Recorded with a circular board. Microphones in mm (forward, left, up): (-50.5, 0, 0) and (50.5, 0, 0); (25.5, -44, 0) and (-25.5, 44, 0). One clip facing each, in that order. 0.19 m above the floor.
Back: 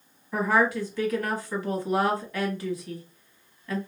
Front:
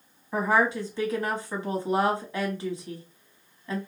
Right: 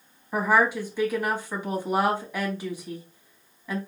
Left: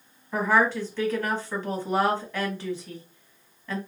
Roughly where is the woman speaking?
Ahead.